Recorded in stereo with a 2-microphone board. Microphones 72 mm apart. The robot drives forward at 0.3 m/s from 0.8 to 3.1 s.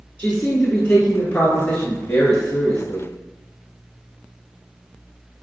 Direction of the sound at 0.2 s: 20° left (ahead or behind).